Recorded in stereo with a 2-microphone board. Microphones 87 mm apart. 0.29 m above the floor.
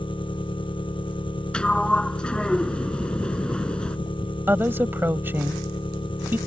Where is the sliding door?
10° left (ahead or behind).